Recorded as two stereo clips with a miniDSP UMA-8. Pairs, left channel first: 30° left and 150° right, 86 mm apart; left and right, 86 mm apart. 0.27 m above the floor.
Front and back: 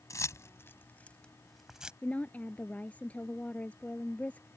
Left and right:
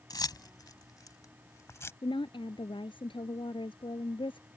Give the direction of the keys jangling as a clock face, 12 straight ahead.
10 o'clock.